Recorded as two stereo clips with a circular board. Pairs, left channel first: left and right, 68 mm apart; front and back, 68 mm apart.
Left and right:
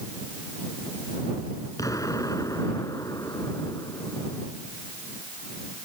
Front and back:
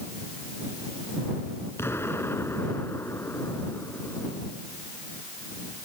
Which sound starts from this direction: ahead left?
An explosion, at 1.8 s.